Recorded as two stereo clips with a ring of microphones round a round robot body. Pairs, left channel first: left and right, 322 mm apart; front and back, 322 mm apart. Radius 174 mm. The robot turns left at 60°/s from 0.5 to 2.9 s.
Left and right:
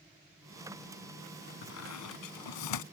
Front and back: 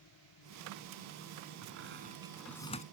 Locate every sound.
1.6 s a squeak: 140° left; by 2.8 s 65° left